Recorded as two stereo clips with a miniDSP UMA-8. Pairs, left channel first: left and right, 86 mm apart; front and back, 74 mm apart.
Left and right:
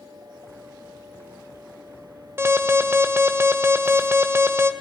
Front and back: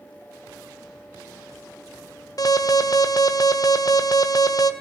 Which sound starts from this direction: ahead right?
An alarm, at 2.4 s.